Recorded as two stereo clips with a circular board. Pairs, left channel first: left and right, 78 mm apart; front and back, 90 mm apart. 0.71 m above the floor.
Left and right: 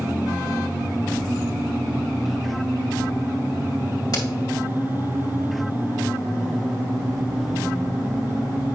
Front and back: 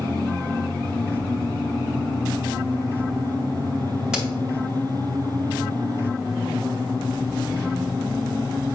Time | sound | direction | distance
4.1 | a crack | 100° left | 1.7 m